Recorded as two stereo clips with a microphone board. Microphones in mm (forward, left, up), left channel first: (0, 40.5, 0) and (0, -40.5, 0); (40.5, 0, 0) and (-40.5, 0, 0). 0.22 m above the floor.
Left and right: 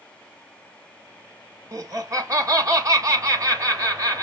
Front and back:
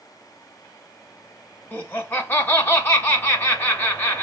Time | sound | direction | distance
1.7 | laughter | 60° right | 1.9 m